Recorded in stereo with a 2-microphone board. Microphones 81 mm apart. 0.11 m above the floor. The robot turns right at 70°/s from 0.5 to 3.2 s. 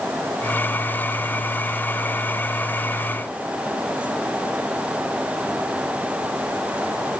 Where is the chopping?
I don't hear chopping.